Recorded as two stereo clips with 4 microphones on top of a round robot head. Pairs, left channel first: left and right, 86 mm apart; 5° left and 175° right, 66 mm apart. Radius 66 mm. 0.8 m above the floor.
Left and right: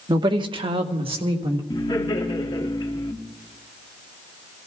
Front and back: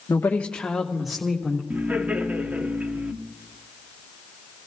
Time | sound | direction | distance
0.1 | a woman speaking | 55° right | 1.1 m
1.7 | laughter | 120° left | 1.7 m